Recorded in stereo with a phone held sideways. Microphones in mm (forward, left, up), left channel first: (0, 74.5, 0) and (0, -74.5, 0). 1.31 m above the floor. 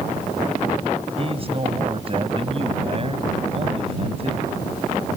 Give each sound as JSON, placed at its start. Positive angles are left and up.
{"t": 1.2, "sound": "a man speaking", "side_deg": -40}